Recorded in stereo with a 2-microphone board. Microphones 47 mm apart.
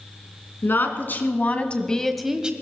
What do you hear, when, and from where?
0.6 s a woman speaking: 55° left (ahead or behind), 2.5 m; by 2.5 s 20° right (ahead or behind), 1.2 m